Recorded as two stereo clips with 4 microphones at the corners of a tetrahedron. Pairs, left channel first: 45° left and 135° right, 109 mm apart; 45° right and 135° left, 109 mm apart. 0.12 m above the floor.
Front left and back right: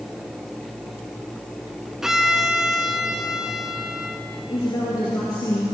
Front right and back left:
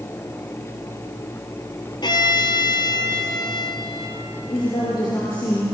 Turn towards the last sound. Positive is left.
turn(degrees=-5)